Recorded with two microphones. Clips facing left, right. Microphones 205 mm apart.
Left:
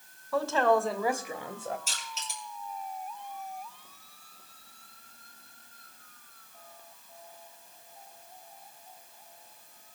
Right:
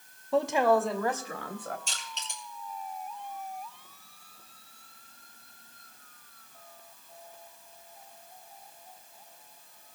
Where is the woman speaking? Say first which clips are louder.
Right 1 dB; 25° right (ahead or behind), 0.9 m; by 1.8 s 25° left (ahead or behind), 1.4 m.